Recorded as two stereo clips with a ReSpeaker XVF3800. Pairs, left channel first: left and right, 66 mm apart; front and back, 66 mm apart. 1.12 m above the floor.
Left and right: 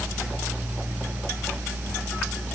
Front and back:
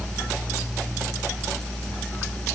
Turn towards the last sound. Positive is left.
No sound to turn to.